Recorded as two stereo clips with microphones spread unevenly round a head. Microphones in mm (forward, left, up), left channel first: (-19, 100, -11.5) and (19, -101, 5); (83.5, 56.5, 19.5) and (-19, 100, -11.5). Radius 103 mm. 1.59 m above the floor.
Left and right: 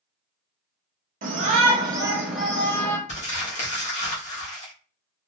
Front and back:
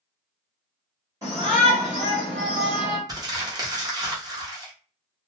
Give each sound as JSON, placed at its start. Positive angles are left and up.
{"t": 1.2, "sound": "a shout", "azimuth_deg": -125, "distance_m": 1.1}
{"t": 3.1, "sound": "crumpling", "azimuth_deg": 105, "distance_m": 1.0}